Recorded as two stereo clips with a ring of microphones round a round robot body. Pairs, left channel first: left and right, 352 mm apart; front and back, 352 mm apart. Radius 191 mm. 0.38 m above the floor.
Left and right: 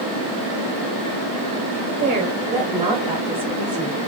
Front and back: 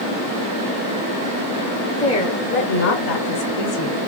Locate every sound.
2.0 s a woman speaking: 55° right, 1.0 m; by 4.0 s straight ahead, 1.7 m